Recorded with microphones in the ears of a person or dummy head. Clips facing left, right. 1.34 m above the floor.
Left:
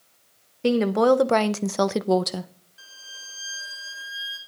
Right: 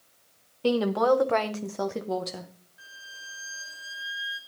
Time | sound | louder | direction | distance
0.6 | a woman speaking | left 4 dB | 25° left (ahead or behind) | 1.3 m
2.8 | a violin | even | 55° left (ahead or behind) | 2 m